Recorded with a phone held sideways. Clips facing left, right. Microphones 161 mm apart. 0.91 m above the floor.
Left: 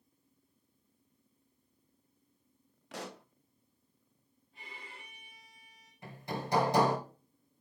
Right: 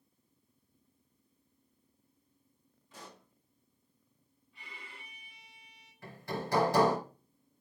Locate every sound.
2.9 s a pop: 75° left (ahead or behind), 0.5 m
4.5 s a violin: 45° left (ahead or behind), 3.5 m
6.0 s hammering: 20° left (ahead or behind), 4.5 m